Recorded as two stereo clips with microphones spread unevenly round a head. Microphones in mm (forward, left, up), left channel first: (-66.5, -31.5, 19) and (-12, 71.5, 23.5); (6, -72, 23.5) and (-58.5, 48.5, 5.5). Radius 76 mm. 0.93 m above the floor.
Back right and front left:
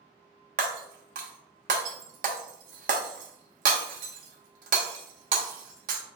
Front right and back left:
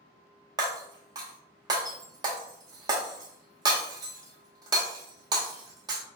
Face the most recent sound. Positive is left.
turn(degrees=50)